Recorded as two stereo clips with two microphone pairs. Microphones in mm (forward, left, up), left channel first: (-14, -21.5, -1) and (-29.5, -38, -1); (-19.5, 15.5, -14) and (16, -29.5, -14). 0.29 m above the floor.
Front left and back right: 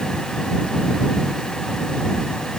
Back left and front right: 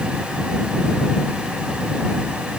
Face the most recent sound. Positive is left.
No sound to turn to.